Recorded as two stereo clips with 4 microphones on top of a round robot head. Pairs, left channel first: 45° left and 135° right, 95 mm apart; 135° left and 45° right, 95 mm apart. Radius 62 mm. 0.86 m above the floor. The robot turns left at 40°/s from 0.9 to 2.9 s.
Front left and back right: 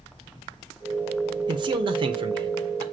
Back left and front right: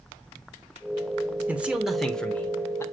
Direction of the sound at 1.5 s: 115° right.